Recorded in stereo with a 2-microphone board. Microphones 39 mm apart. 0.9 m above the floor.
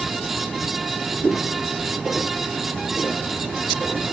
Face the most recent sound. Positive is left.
turn(degrees=-30)  # may be behind; listen again after turning